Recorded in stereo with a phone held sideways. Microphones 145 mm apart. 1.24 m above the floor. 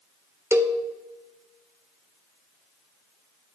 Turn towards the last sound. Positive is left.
turn(degrees=-15)  # may be behind; listen again after turning